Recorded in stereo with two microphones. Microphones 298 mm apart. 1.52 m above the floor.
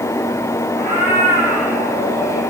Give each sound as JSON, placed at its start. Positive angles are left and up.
{"t": 0.8, "sound": "a cat meowing", "side_deg": -25, "distance_m": 6.5}